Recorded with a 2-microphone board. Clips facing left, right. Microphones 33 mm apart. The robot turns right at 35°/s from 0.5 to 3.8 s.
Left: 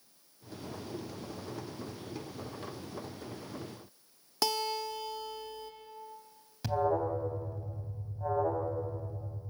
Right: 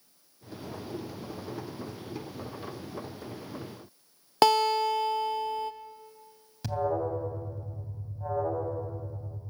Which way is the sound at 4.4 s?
50° right (ahead or behind).